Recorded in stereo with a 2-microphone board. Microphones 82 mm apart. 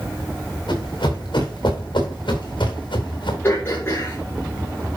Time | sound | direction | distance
0.7 | running footsteps | 70° left (ahead or behind) | 4.5 m
3.4 | throat clearing | 30° left (ahead or behind) | 6.5 m